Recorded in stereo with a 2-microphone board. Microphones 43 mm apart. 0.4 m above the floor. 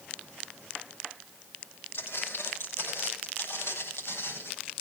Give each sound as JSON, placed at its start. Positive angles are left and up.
{"t": 1.9, "sound": "footsteps", "side_deg": 55, "distance_m": 8.0}